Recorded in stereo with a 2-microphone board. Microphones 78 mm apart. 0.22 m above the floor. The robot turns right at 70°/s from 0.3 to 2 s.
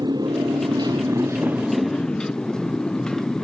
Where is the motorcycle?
110° right; by 3.5 s 10° left.